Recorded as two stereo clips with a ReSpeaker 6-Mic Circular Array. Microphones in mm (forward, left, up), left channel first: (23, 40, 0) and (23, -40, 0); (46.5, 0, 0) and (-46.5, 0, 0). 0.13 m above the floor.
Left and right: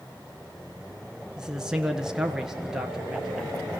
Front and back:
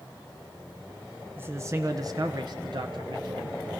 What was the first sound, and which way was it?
A man speaking, 160° right.